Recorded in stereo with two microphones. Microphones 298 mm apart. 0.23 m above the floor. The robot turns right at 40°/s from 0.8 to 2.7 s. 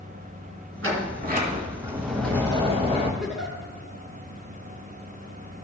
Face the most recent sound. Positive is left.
turn(degrees=0)  # may be behind; listen again after turning